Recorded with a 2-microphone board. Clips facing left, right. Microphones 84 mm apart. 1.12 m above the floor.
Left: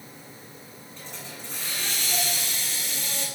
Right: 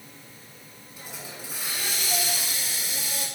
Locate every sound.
1.0 s a hiss: 10° right (ahead or behind), 5.5 m